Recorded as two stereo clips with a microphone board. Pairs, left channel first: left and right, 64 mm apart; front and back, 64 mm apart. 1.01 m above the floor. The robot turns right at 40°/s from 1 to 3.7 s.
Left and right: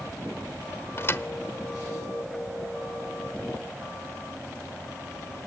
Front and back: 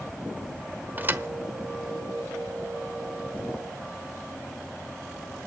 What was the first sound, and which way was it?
A thud, 125° left.